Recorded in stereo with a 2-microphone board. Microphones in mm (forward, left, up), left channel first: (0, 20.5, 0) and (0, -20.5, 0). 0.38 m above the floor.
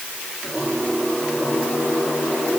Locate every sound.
Only background noise.